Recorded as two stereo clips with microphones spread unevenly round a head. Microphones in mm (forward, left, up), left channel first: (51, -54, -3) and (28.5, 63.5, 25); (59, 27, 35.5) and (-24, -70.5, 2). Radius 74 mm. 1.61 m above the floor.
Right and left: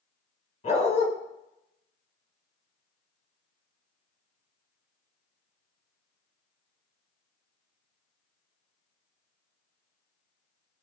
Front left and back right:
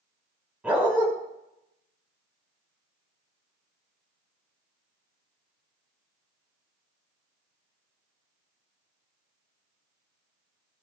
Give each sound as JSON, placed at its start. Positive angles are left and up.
{"t": 0.6, "sound": "a dog barking", "azimuth_deg": -45, "distance_m": 5.0}